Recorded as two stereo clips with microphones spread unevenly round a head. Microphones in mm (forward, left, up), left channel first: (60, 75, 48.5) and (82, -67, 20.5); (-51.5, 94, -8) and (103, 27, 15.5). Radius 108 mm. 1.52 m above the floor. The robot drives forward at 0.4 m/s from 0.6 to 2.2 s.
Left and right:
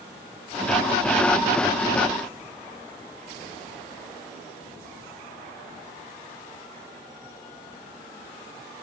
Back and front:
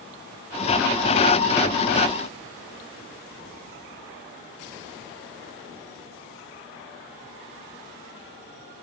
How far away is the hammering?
I don't hear hammering.